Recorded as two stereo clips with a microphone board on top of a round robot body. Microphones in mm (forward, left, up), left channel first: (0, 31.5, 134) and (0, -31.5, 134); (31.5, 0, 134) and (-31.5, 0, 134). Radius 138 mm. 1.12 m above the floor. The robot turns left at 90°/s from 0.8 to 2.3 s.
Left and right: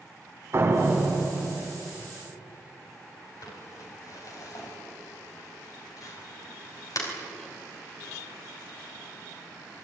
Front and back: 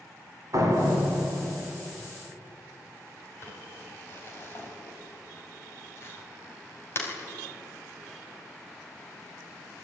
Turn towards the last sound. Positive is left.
turn(degrees=55)